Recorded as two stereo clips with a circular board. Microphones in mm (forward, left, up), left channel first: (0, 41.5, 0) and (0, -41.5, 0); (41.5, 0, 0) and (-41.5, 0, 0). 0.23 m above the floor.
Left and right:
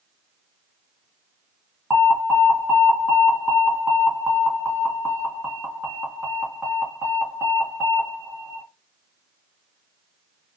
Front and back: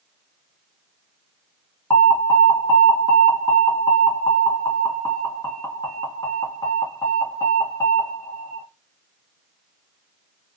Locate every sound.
1.9 s an alarm: 30° right, 2.5 m